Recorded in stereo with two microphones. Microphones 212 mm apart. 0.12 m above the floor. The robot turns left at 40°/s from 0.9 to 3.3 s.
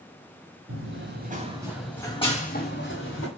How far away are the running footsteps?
About 0.7 m.